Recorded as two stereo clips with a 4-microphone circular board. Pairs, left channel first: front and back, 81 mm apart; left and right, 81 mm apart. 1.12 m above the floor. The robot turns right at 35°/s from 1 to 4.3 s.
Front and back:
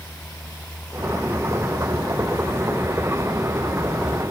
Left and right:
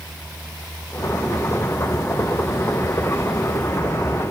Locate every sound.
Only background noise.